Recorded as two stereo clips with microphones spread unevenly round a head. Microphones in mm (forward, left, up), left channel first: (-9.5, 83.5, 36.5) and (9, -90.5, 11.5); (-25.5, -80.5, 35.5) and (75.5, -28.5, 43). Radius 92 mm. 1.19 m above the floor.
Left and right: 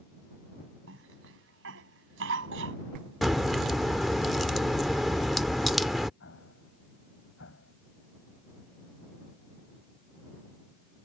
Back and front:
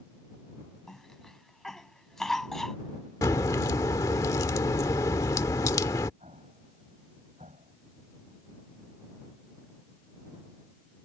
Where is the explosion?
85° left.